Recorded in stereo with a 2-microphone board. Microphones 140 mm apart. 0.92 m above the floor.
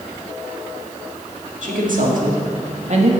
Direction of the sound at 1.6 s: 70° right (ahead or behind).